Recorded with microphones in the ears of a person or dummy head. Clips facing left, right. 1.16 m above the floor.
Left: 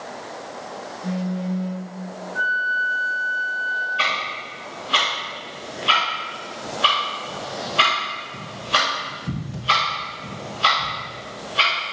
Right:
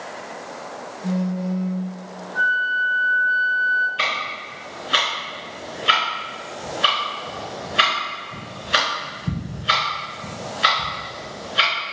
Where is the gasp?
I don't hear a gasp.